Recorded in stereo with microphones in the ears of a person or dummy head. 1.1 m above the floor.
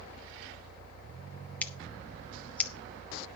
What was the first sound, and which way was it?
Scissors, 15° left (ahead or behind).